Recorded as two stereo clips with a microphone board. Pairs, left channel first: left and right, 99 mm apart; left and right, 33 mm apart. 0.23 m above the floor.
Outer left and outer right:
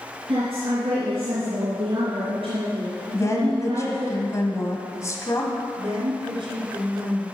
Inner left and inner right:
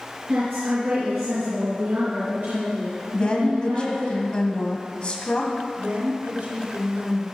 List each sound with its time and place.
0.3 s a woman speaking: 70° right (ahead or behind), 3.5 m
3.1 s a woman speaking: 35° left (ahead or behind), 1.5 m
5.8 s a woman speaking: 65° right (ahead or behind), 3.5 m